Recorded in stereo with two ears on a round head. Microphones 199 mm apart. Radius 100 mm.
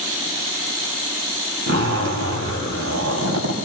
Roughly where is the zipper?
Right.